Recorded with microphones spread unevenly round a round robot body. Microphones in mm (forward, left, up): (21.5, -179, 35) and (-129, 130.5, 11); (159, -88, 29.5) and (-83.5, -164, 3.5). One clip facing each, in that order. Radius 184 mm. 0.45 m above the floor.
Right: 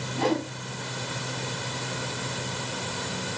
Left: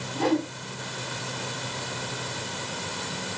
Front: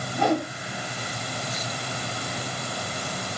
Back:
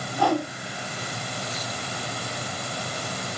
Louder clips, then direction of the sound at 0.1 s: Left 2 dB, even; 50° right.